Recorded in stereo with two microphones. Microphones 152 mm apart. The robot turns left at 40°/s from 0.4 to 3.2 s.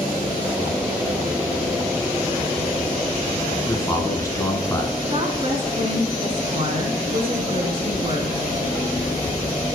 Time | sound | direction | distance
3.7 | a man speaking | 20° left (ahead or behind) | 1.1 m
5.1 | a woman speaking | 40° right (ahead or behind) | 1.3 m